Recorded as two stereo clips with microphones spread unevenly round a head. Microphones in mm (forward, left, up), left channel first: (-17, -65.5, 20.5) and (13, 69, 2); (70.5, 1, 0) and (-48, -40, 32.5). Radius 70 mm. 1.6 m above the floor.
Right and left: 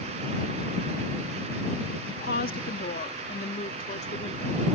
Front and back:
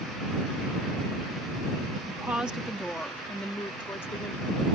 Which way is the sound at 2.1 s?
85° right.